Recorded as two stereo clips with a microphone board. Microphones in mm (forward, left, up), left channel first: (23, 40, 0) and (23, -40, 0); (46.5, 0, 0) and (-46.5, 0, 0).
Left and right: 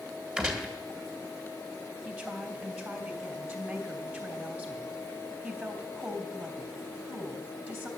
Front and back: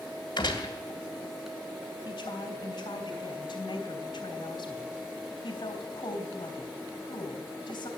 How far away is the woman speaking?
About 3 m.